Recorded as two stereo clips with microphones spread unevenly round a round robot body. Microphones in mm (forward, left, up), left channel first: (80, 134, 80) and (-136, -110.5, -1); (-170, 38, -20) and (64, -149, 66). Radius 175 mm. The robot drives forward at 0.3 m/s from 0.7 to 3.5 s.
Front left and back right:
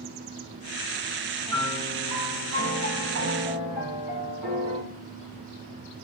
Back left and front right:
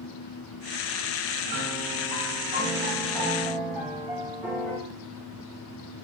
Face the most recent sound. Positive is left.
turn(degrees=-135)